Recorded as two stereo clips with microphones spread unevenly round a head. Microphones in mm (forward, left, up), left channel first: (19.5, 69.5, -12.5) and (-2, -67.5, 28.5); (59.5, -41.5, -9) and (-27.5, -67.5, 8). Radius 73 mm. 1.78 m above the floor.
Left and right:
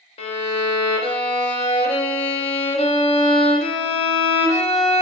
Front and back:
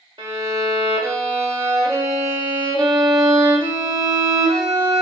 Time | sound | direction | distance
0.2 | a violin | 135° left | 0.6 m